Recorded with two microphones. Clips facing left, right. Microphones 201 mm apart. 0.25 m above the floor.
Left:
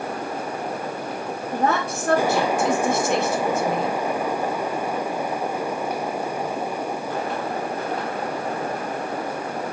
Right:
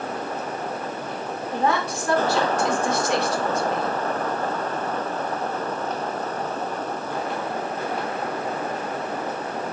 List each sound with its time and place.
1.5 s a woman speaking: 50° left (ahead or behind), 2.5 m